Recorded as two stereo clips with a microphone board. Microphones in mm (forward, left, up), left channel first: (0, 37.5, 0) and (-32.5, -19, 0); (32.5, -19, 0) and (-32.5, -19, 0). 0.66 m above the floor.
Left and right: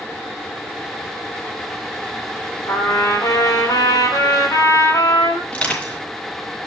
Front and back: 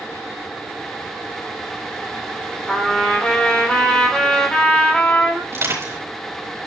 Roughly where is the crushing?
Behind left.